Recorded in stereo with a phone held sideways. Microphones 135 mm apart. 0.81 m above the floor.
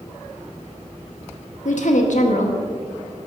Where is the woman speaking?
70° left (ahead or behind), 1.4 m.